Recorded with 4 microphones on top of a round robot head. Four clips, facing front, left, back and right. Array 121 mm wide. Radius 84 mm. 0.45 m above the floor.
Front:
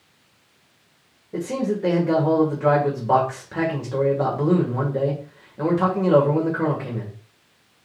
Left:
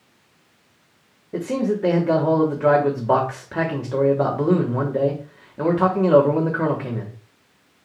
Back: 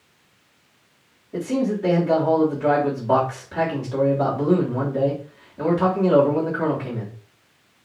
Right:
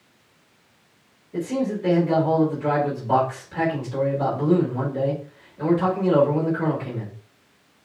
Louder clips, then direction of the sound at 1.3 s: Left 2 dB, back 1 dB; 75° left.